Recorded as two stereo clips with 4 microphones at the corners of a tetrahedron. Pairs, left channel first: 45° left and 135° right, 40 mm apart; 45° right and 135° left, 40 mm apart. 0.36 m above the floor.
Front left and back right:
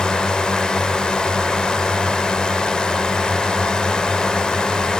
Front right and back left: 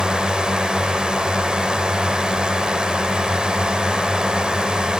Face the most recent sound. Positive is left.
turn(degrees=95)